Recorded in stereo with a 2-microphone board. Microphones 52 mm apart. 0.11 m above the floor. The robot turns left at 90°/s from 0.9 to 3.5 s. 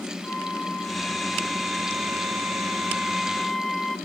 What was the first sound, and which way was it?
A flute, 55° left.